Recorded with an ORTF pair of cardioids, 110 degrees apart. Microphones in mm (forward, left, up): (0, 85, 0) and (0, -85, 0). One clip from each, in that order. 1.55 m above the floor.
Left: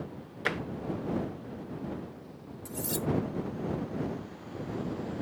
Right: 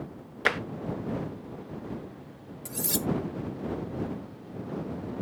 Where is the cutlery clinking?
40° right.